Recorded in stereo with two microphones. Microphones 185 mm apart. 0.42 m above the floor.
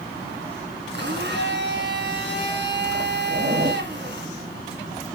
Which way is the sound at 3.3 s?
60° right (ahead or behind).